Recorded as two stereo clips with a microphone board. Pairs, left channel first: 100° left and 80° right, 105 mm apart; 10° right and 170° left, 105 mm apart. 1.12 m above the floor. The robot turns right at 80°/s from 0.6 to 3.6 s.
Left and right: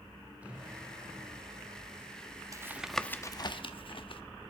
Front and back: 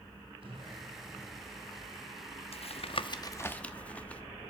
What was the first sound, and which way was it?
An explosion, 155° right.